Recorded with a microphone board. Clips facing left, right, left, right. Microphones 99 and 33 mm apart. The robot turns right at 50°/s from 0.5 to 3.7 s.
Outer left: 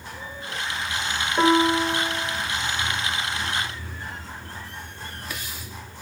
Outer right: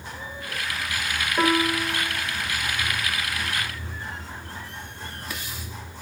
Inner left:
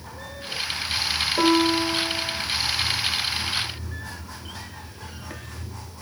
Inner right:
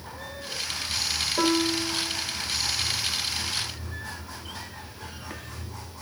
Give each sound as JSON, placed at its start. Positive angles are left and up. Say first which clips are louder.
{"t": 1.4, "sound": "a piano", "louder": "outer left 4 dB, inner left 5 dB", "azimuth_deg": 10, "distance_m": 1.9}